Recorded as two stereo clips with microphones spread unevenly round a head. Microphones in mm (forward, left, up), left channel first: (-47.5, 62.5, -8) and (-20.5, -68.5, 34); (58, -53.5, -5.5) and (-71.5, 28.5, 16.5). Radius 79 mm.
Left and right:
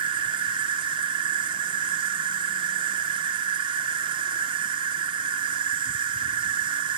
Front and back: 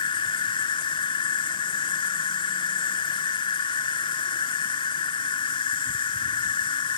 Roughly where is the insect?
Right.